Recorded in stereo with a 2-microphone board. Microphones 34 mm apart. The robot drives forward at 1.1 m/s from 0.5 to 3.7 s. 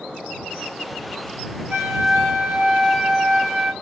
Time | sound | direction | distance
1.7 | a flute | 60° right (ahead or behind) | 1.8 m